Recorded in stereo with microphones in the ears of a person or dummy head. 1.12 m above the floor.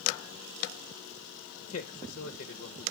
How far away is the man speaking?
About 0.9 m.